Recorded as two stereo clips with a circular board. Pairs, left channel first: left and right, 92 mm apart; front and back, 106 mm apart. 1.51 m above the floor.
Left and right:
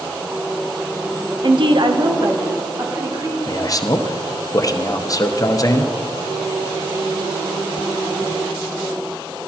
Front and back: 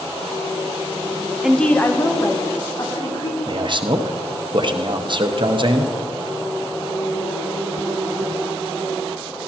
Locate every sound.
1.4 s a woman speaking: 100° right, 0.6 m; by 3.4 s 40° right, 2.5 m
3.5 s a man speaking: 140° left, 0.7 m